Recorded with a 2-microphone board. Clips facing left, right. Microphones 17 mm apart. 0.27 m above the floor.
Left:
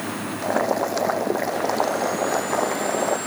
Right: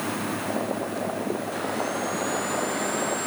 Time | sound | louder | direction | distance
0.4 | boiling | left 6 dB | 80° left | ?